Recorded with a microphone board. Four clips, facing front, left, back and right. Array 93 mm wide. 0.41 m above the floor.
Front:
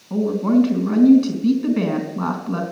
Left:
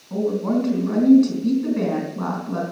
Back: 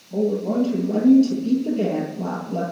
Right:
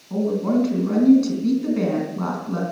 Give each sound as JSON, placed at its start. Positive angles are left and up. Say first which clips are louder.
{"t": 0.1, "sound": "a woman speaking", "louder": "right 1 dB, front 4 dB", "azimuth_deg": -5, "distance_m": 4.0}